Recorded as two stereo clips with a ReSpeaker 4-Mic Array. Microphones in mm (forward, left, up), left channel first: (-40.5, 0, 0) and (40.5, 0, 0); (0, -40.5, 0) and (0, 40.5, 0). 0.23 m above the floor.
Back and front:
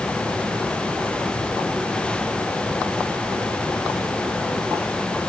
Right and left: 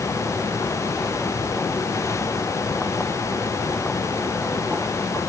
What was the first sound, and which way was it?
Only background noise.